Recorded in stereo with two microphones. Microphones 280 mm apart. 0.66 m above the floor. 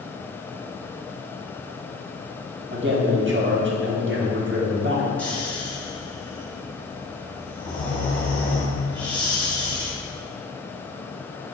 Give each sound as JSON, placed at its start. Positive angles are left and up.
{"t": 2.7, "sound": "a man speaking", "side_deg": -40, "distance_m": 1.4}
{"t": 5.2, "sound": "snoring", "side_deg": 5, "distance_m": 2.5}